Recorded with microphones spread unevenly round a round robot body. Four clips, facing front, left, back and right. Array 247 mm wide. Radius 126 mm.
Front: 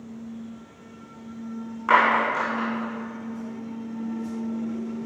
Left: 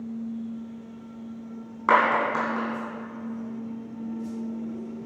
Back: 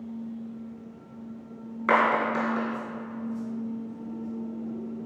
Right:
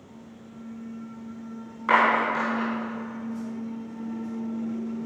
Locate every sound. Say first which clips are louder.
1.9 s a clap: even, front 3 dB; 110° left, 3 m